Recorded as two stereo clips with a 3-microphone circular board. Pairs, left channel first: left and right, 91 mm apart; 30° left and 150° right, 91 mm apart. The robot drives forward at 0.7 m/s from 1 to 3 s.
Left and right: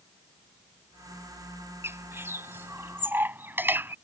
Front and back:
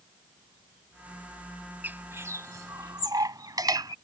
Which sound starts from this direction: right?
A bird, at 1.8 s.